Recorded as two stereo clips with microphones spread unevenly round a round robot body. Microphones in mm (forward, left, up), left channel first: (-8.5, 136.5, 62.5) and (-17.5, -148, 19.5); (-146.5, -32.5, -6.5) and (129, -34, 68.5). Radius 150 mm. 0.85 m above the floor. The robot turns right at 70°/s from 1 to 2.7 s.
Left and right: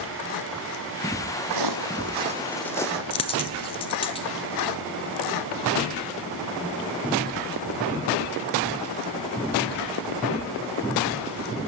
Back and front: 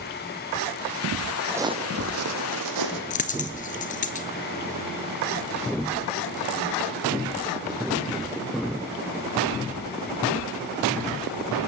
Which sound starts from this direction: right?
Footsteps, at 1.5 s.